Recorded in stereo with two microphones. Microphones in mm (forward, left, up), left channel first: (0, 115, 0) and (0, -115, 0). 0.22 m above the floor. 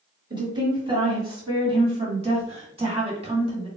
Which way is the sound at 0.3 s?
20° right (ahead or behind).